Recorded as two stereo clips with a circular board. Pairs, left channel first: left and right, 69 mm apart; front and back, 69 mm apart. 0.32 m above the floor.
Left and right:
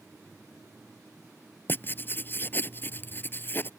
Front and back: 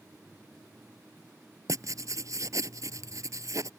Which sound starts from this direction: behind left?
Writing, at 1.7 s.